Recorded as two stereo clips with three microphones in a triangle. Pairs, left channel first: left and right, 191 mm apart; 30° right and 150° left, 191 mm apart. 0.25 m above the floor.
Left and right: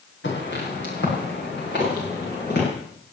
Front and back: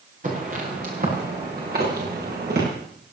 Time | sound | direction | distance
0.2 | footsteps | 105° left | 8.5 m